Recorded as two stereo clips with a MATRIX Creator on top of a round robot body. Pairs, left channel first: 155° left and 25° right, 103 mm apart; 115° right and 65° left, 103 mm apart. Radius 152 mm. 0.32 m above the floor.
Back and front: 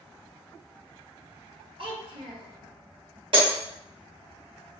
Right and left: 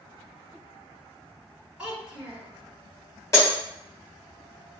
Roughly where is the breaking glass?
Ahead right.